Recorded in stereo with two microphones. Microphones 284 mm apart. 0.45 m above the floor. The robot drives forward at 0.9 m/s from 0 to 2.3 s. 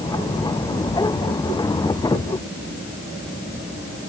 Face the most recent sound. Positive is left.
No sound to turn to.